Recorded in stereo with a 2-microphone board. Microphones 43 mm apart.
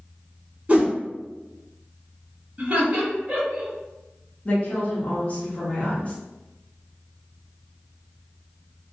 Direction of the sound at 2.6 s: 20° right (ahead or behind).